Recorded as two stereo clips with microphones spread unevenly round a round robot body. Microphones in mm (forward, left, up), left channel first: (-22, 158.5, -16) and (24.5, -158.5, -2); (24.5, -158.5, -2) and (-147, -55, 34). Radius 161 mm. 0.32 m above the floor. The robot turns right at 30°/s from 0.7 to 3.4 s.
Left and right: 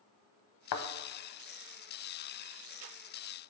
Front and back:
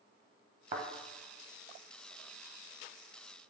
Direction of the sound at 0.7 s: 80° left.